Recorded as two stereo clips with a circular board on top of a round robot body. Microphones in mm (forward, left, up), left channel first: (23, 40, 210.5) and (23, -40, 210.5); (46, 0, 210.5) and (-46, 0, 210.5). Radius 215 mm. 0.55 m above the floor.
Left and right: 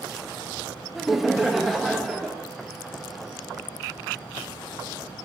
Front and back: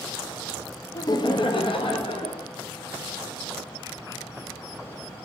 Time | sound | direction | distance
0.9 | laughter | 5° right | 0.9 m